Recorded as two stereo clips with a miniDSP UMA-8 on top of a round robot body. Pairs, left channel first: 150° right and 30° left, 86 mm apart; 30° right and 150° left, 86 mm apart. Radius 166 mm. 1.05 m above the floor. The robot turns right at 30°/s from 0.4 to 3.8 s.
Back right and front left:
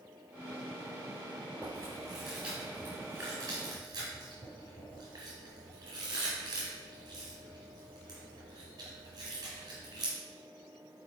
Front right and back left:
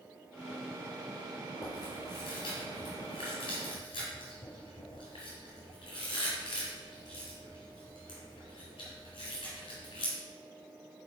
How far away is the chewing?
About 2.5 m.